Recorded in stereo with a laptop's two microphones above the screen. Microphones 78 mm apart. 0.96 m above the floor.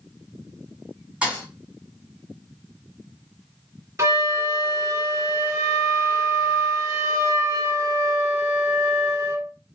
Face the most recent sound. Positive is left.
turn(degrees=-35)  # may be behind; listen again after turning